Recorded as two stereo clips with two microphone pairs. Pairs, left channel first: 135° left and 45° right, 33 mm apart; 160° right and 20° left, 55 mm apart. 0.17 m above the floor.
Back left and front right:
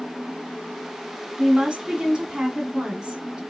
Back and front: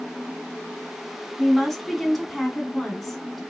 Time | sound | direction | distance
1.4 | a woman speaking | 80° right | 1.2 m